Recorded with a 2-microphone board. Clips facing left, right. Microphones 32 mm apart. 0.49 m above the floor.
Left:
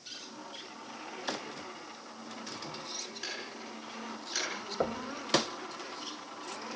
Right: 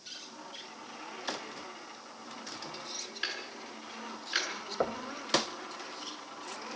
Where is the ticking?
35° right (ahead or behind), 6.5 m.